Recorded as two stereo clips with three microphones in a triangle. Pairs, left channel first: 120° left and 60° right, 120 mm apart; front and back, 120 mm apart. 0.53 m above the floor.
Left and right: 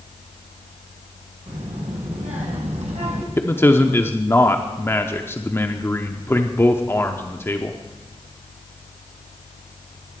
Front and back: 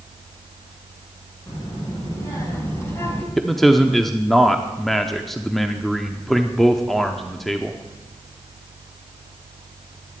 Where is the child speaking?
55° right, 4.5 m; by 3.3 s 70° right, 2.5 m.